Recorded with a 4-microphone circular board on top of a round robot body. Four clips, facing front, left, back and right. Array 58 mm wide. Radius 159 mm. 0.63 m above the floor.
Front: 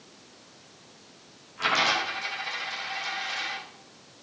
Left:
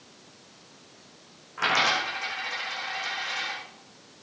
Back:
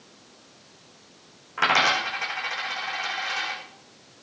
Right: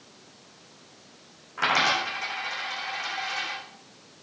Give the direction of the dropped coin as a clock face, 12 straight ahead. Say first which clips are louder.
Right 1 dB, back 4 dB; 6 o'clock.